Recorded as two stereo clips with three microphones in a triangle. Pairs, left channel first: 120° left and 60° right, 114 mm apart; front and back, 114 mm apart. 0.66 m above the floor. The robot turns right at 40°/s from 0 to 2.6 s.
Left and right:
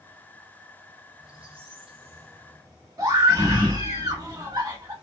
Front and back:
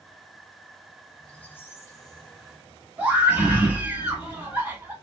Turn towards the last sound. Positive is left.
turn(degrees=-110)